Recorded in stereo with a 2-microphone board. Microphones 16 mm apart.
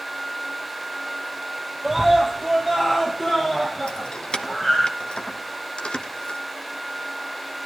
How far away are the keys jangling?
About 1.4 m.